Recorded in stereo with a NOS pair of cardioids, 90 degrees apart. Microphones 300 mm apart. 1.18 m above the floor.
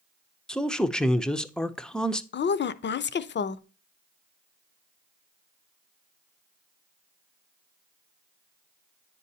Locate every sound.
0.5 s a man speaking: straight ahead, 0.6 m
2.3 s a woman speaking: 35° left, 0.6 m